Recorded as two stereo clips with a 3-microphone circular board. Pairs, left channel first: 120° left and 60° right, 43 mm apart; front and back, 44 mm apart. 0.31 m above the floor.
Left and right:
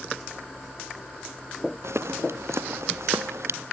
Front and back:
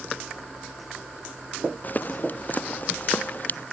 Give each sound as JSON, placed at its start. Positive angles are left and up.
{"t": 1.8, "sound": "footsteps", "azimuth_deg": -50}